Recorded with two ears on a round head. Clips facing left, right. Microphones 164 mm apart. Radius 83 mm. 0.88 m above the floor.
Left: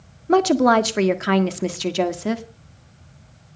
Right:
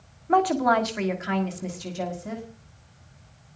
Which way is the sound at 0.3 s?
45° left (ahead or behind).